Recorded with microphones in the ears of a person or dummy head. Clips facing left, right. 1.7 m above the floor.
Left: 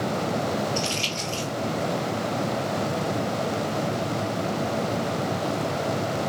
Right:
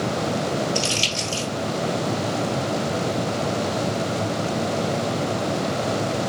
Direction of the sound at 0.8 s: 65° right (ahead or behind).